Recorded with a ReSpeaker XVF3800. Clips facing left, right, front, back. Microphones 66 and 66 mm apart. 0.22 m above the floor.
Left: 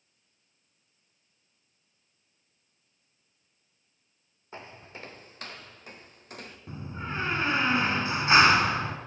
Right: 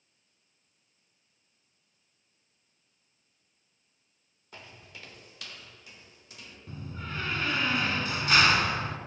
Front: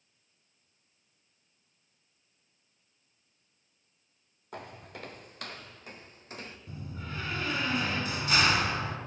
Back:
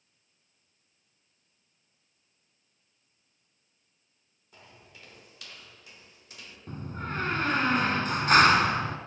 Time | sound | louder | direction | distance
4.5 | footsteps | left 5 dB, front 10 dB | 30° left | 2.5 m
6.7 | a door slam | left 3 dB, back 9 dB | 150° left | 1.8 m